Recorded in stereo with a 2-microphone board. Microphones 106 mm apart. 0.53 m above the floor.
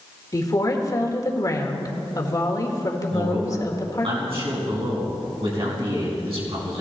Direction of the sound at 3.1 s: 60° right (ahead or behind).